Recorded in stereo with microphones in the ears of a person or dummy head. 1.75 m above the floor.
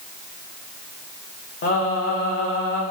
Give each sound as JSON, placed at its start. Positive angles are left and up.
{"t": 1.6, "sound": "singing", "side_deg": 45, "distance_m": 2.5}